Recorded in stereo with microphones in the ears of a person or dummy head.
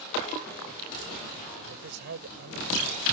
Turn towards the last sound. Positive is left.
turn(degrees=-50)  # may be behind; listen again after turning